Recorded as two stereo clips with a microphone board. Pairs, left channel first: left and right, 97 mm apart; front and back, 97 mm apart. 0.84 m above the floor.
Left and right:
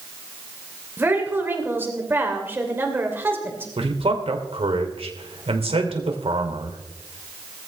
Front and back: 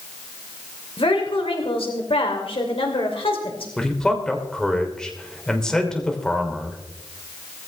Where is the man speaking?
85° right, 2.5 m.